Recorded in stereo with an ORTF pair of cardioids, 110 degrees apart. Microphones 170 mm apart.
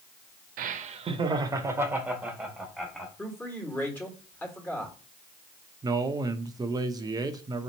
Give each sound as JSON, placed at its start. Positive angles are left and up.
{"t": 0.6, "sound": "laughter", "azimuth_deg": -60, "distance_m": 0.6}
{"t": 3.2, "sound": "a man speaking", "azimuth_deg": 10, "distance_m": 1.5}
{"t": 5.8, "sound": "a man speaking", "azimuth_deg": -25, "distance_m": 0.7}